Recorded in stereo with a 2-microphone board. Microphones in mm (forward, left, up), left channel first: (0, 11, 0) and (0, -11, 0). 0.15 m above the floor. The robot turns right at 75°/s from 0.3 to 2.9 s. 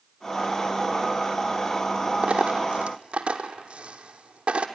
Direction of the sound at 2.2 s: 60° right (ahead or behind).